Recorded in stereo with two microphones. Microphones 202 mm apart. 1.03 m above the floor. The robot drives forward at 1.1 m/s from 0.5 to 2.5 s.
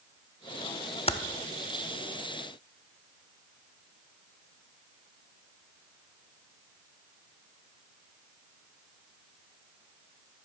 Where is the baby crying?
No baby crying in this recording.